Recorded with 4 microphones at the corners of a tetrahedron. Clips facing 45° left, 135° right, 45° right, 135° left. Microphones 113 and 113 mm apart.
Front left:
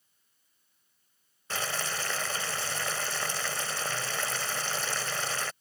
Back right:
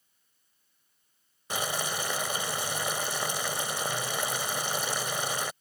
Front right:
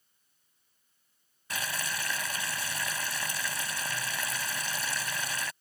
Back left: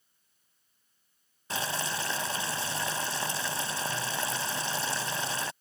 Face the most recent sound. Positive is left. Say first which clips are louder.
# back right 2 dB, back left 3 dB
turn(degrees=160)